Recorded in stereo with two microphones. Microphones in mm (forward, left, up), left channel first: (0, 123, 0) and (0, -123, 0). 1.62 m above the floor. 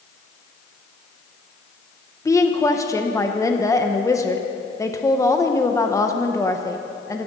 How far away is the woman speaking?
About 0.9 m.